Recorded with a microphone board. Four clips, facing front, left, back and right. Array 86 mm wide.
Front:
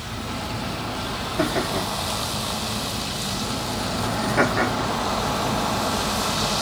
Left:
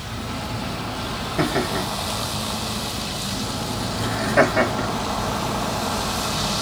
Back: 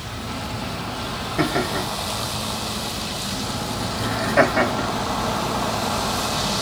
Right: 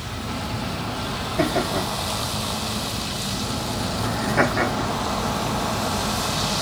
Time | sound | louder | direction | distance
1.4 | laughter | even, back 1 dB | 140° left | 1.9 m